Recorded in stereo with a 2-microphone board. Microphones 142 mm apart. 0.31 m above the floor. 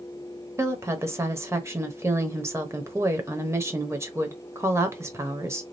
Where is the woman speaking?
20° right (ahead or behind), 0.9 m.